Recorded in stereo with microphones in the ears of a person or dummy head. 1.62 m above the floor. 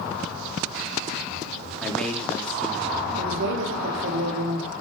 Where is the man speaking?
10° left (ahead or behind), 4 m.